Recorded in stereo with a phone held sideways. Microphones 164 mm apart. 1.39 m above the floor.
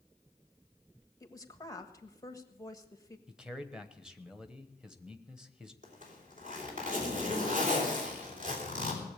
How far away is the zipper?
About 3.5 m.